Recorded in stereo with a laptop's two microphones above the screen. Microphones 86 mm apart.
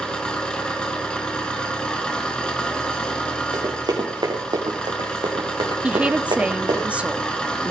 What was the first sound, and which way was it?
An engine running, 10° left (ahead or behind).